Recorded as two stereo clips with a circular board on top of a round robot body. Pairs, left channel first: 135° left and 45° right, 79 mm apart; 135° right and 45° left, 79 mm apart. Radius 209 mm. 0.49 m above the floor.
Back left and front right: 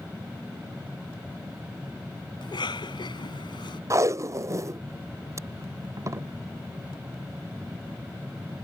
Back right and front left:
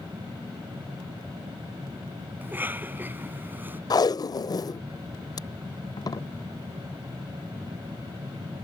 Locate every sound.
2.4 s a cough: 110° left
3.9 s tape being pulled: 95° right